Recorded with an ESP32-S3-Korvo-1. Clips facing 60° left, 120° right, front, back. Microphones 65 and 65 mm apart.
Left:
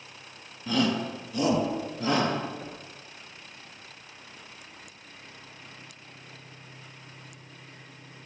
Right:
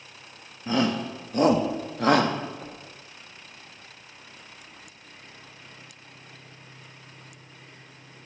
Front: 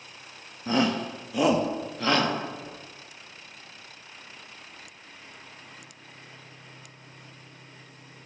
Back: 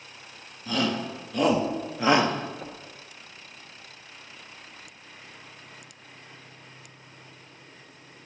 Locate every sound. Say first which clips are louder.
0.7 s a shout: right 1 dB, front 2 dB; 60° right, 1.1 m; by 2.3 s 115° right, 1.3 m
2.6 s knocking: even, back 2 dB; 145° left, 2 m